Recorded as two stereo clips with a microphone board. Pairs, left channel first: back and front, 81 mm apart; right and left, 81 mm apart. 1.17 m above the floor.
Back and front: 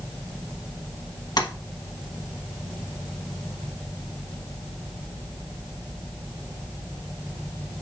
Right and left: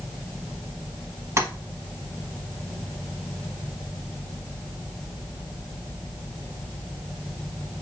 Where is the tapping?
145° left, 1.0 m.